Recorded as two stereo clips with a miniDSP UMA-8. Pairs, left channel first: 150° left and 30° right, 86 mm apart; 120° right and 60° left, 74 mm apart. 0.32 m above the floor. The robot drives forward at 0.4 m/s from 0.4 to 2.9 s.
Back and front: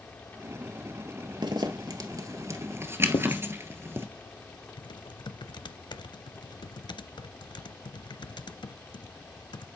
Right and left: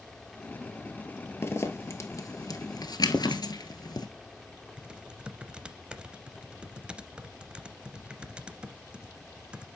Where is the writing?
165° left, 1.3 m.